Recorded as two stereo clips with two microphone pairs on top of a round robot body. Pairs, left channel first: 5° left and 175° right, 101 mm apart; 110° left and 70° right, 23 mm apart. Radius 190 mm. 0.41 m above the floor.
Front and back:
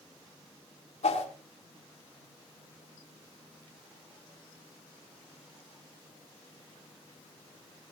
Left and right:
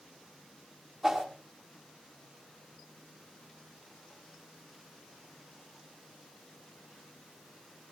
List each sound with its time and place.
1.0 s a whoosh: 15° left, 2.5 m